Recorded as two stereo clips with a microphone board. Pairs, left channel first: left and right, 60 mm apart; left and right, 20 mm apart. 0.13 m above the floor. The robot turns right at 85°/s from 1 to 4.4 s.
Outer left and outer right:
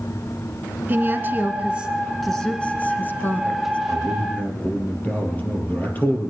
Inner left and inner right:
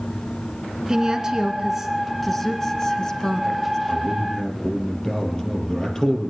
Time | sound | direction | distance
0.9 | a woman speaking | 35° right (ahead or behind) | 1.3 m
3.9 | a man speaking | 105° left | 3.5 m